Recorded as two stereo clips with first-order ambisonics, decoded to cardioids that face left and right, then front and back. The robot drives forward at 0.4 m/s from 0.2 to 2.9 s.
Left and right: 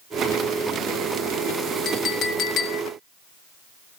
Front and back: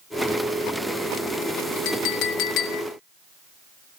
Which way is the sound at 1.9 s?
30° left.